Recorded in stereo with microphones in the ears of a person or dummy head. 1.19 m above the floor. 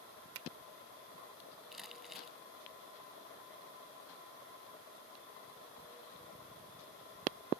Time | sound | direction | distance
0.3 | a finger snap | 85° right | ?
1.7 | crumpling | centre (ahead or behind) | ?